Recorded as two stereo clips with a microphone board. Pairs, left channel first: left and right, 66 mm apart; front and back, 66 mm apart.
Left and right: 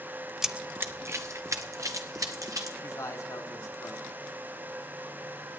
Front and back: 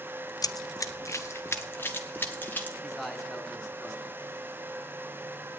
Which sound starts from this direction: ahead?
Running footsteps, at 0.4 s.